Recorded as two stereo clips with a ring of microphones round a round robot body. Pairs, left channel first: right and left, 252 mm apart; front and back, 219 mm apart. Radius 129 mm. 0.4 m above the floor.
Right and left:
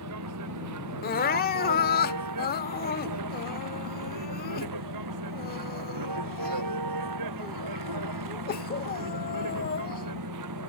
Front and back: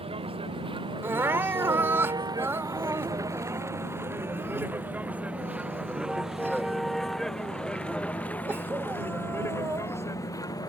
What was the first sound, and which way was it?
A vehicle, 115° left.